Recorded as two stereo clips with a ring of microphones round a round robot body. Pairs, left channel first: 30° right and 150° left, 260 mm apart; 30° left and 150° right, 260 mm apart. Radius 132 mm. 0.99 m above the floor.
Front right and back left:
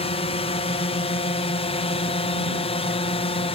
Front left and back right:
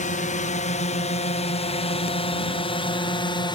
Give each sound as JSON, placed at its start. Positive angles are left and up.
{"t": 0.0, "sound": "a drone", "azimuth_deg": 10}